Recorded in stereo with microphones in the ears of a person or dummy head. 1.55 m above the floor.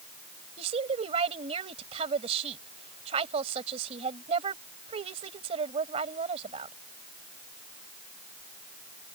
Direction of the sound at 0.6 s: 40° right (ahead or behind).